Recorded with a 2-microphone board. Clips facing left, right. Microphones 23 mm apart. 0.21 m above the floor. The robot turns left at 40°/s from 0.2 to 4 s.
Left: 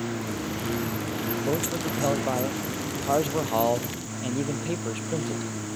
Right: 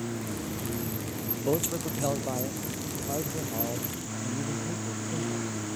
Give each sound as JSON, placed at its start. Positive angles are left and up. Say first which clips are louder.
{"t": 0.0, "sound": "a lawn mower", "louder": "left 4 dB", "side_deg": 25}
{"t": 1.4, "sound": "a man speaking", "louder": "right 2 dB", "azimuth_deg": -175}